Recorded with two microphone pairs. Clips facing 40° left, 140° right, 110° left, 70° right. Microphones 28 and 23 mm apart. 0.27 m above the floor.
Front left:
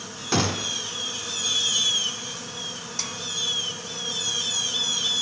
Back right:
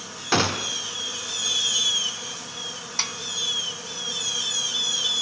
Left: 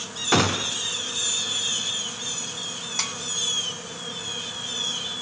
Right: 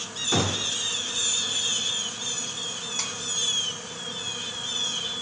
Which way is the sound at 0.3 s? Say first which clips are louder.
Back right 2 dB, left 4 dB; 155° left.